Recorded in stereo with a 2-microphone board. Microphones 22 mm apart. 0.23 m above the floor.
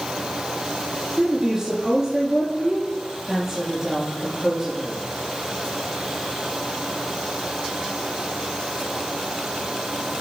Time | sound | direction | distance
1.2 | a woman speaking | 10° right (ahead or behind) | 5.5 m